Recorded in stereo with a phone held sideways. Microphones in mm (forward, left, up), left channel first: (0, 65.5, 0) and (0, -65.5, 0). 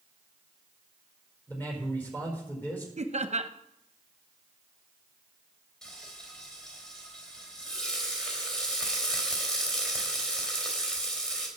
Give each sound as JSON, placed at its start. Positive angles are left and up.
{"t": 1.5, "sound": "a man speaking", "side_deg": 15, "distance_m": 4.5}
{"t": 3.0, "sound": "laughter", "side_deg": -60, "distance_m": 0.9}
{"t": 5.8, "sound": "frying", "side_deg": 5, "distance_m": 3.0}